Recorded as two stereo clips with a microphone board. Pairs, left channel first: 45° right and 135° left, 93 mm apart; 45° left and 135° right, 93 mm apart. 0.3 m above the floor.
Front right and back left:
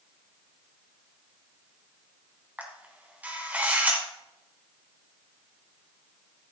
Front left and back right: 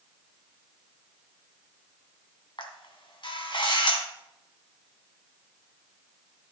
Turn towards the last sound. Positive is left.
turn(degrees=65)